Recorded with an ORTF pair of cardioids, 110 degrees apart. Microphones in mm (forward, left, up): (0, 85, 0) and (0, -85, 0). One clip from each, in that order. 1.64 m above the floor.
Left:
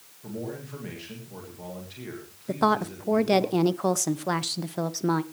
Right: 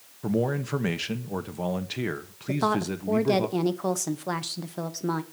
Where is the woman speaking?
15° left, 0.9 m.